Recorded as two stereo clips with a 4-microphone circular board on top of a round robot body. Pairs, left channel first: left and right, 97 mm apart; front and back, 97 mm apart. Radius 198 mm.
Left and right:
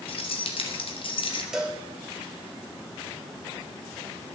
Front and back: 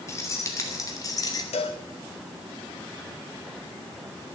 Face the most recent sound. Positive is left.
turn(degrees=-5)